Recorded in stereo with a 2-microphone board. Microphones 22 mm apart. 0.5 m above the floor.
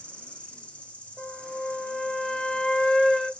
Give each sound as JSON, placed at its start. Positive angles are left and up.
{"t": 0.0, "sound": "an insect", "side_deg": 65, "distance_m": 1.1}
{"t": 1.2, "sound": "a flute", "side_deg": 50, "distance_m": 1.9}